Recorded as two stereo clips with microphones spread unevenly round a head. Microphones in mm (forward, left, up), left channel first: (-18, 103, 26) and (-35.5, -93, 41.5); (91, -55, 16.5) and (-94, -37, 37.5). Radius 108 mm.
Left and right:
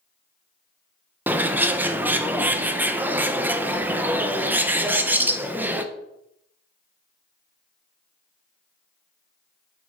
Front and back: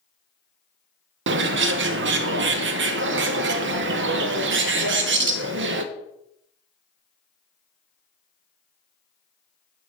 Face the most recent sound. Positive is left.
turn(degrees=-175)